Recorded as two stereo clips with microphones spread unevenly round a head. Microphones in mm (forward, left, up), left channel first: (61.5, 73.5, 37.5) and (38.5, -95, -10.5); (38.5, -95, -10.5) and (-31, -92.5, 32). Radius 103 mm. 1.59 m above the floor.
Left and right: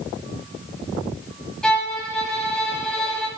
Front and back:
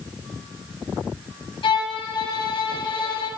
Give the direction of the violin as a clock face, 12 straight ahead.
12 o'clock.